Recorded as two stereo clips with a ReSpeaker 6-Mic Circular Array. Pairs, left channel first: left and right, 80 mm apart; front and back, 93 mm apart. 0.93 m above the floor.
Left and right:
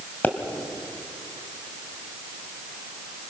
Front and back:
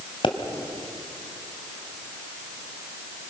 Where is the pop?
20° left, 1.9 m.